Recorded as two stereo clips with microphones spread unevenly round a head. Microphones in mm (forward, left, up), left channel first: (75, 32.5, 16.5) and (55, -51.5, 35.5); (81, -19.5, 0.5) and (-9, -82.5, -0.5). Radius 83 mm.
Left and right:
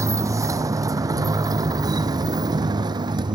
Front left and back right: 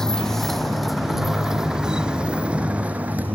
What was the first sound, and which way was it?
A motorcycle, 50° right.